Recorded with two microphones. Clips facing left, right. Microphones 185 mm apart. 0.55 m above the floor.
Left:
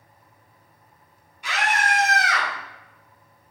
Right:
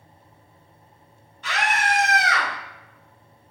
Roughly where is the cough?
I don't hear a cough.